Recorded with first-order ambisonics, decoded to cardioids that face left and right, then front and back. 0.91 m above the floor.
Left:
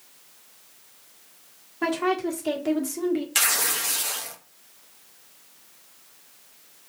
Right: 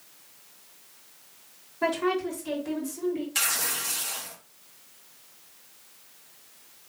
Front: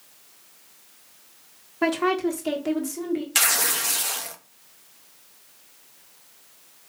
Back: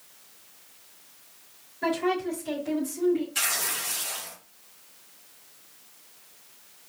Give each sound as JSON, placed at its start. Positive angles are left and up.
{"t": 1.8, "sound": "a woman speaking", "azimuth_deg": 15, "distance_m": 1.9}
{"t": 3.4, "sound": "tearing paper", "azimuth_deg": 30, "distance_m": 0.9}